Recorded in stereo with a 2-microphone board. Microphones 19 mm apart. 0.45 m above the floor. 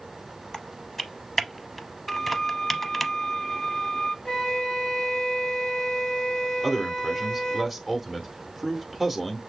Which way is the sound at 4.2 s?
45° left (ahead or behind).